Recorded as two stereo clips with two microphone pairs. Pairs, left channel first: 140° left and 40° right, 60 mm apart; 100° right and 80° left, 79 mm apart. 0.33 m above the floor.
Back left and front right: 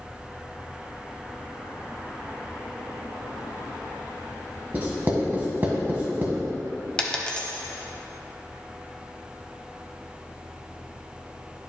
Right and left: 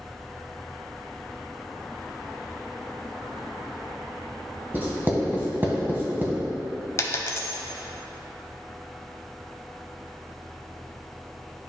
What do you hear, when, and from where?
4.7 s writing: 15° left, 1.4 m
7.0 s a dropped coin: 150° right, 0.8 m